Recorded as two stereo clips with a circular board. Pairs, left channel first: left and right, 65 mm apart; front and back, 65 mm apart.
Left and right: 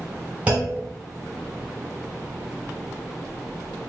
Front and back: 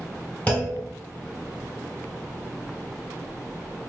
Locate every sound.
0.5 s a clunk: 40° right, 1.8 m